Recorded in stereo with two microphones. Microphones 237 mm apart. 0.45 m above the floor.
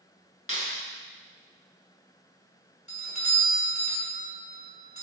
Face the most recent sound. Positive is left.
turn(degrees=30)  # may be behind; listen again after turning